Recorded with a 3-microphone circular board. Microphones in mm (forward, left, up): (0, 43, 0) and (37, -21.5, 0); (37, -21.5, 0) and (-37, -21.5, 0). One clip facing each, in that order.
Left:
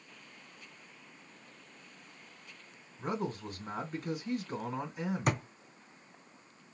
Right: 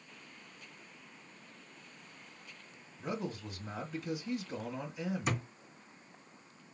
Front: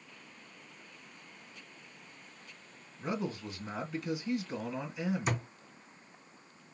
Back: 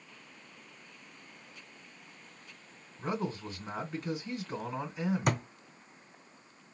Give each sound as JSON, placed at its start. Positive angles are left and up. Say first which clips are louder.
{"t": 3.0, "sound": "a man speaking", "louder": "left 3 dB, back 1 dB", "azimuth_deg": 135, "distance_m": 2.5}
{"t": 5.3, "sound": "a thud", "louder": "left 5 dB, back 4 dB", "azimuth_deg": 150, "distance_m": 1.9}